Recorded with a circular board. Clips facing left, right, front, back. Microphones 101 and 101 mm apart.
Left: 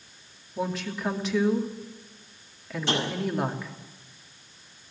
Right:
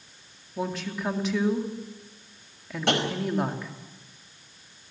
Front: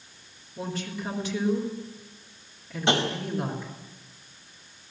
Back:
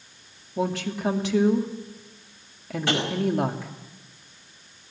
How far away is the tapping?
About 5 m.